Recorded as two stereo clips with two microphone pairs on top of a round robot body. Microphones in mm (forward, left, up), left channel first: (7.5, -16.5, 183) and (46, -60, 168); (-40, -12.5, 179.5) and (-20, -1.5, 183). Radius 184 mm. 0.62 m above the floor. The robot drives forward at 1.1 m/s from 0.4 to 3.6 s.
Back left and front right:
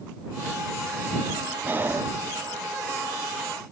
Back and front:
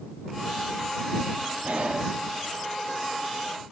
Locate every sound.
1.6 s breathing: 10° left